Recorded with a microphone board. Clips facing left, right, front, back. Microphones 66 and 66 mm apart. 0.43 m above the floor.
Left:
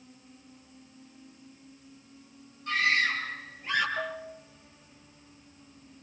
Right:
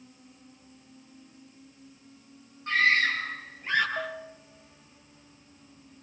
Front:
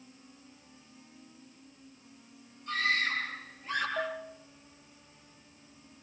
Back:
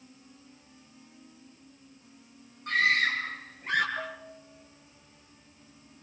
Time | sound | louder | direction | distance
2.7 | a scream | right 3 dB, back 5 dB | 145° right | 8 m
4.0 | a bell | even, front 3 dB | 35° right | 5 m